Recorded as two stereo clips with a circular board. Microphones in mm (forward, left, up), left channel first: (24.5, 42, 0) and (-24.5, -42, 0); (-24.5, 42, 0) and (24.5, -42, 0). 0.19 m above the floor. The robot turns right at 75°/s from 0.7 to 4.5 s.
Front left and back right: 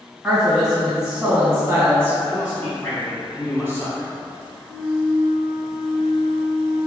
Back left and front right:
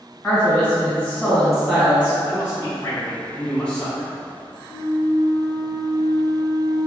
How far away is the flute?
About 1.6 m.